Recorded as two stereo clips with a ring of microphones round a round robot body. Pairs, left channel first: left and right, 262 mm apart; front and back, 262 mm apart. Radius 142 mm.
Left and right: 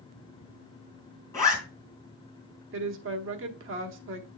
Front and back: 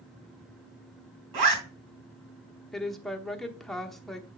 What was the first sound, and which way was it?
A zipper, 170° left.